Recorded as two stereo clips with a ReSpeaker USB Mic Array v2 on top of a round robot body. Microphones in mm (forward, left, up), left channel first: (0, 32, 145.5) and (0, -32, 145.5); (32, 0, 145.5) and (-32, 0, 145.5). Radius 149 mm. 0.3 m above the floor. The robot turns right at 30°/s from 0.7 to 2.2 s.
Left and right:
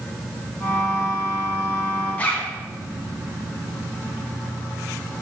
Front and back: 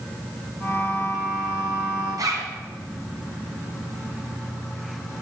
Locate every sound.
2.2 s a zipper: 155° left, 2.5 m